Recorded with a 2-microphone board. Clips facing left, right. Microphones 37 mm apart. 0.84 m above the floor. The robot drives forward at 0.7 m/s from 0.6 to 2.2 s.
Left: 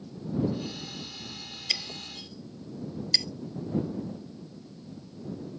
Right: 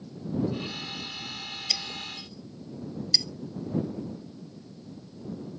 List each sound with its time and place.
1.7 s breaking glass: 20° left (ahead or behind); by 3.3 s 25° left (ahead or behind)